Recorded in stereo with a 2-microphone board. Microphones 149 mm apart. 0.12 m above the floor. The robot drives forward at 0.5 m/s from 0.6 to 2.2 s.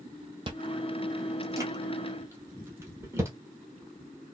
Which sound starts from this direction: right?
Chewing, at 0.5 s.